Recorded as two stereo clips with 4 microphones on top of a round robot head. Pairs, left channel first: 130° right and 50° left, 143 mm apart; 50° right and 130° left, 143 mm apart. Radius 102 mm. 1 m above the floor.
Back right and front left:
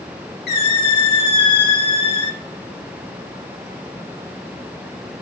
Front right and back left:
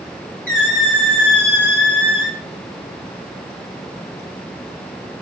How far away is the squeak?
About 3.5 m.